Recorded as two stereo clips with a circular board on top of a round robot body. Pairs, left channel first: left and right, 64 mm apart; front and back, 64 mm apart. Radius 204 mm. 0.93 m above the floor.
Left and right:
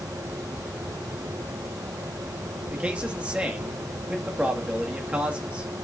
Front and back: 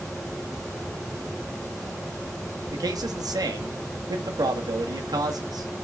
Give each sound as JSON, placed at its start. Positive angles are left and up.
{"t": 2.7, "sound": "a man speaking", "azimuth_deg": -165, "distance_m": 1.6}